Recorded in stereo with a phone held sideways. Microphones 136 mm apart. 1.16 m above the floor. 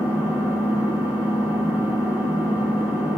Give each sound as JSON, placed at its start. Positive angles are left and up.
{"t": 0.0, "sound": "an engine running", "side_deg": -20, "distance_m": 1.0}